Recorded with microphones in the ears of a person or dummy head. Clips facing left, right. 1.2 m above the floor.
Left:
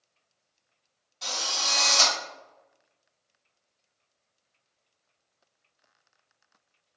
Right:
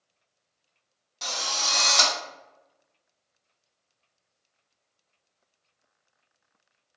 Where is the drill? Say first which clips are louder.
Right 1 dB; 70° right (ahead or behind), 1.0 m.